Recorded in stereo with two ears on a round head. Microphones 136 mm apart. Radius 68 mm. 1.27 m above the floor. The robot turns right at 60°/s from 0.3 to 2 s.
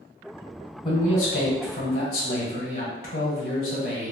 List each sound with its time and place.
0.8 s a man speaking: 35° left, 1.1 m; by 4.1 s 105° left, 1.1 m